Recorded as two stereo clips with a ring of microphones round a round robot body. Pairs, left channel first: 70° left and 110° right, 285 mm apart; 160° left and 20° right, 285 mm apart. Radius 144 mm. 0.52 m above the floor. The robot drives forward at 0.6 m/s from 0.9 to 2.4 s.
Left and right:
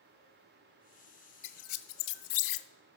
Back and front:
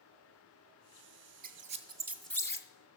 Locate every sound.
1.4 s a squeak: 40° left, 0.9 m; by 2.7 s 75° left, 0.6 m